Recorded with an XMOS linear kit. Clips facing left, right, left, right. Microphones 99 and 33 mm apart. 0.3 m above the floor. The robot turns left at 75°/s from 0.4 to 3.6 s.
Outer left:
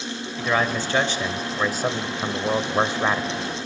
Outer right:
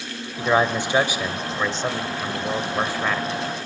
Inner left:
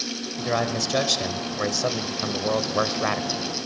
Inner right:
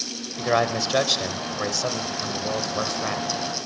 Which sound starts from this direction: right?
A man speaking, at 0.4 s.